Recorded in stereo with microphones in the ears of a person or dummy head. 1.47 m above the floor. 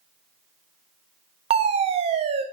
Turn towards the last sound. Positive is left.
turn(degrees=-30)  # may be behind; listen again after turning